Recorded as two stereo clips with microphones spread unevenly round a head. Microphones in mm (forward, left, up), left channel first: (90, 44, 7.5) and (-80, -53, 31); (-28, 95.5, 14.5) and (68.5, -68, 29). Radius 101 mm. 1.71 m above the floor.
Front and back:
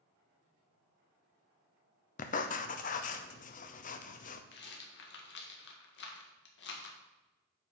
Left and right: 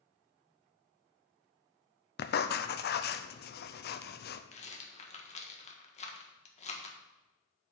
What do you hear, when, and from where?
2.2 s writing: 85° left, 0.6 m
4.5 s a rattle: 65° left, 1.5 m